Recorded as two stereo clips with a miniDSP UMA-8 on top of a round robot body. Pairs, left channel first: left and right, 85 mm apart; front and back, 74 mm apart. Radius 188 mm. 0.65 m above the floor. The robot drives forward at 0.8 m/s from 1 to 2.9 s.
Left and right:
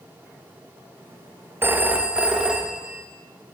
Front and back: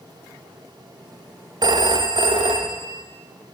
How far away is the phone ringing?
About 0.6 m.